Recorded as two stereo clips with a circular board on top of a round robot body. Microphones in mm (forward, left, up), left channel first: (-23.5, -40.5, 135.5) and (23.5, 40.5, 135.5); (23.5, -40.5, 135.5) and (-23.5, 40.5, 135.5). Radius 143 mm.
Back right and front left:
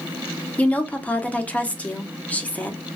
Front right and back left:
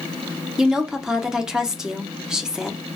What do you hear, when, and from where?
0.6 s a woman speaking: 170° right, 0.8 m